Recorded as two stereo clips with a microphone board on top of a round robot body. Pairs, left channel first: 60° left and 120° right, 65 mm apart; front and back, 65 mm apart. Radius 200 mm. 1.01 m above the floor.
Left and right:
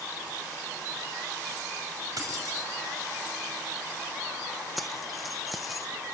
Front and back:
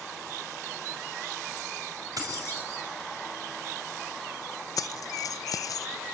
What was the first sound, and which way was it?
Keys jangling, 150° right.